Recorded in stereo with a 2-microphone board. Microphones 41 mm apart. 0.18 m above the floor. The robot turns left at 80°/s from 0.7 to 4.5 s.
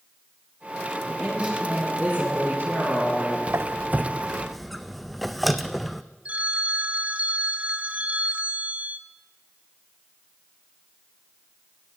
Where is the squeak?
75° right (ahead or behind), 0.6 m; by 6.0 s centre (ahead or behind), 0.6 m.